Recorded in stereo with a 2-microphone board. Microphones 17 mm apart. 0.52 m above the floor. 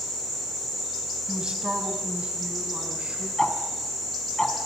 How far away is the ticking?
About 3 m.